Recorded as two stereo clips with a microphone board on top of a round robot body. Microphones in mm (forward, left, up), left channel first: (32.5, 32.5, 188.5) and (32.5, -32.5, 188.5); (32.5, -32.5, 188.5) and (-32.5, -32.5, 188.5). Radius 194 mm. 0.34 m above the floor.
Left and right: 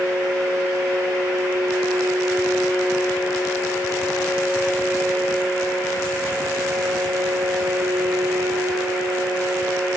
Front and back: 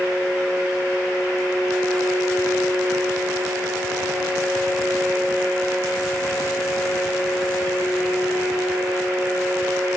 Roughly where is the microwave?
No microwave in this recording.